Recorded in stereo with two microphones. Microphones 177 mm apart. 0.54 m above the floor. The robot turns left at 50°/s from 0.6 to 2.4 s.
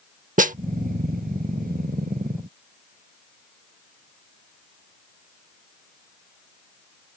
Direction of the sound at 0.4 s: 50° right (ahead or behind).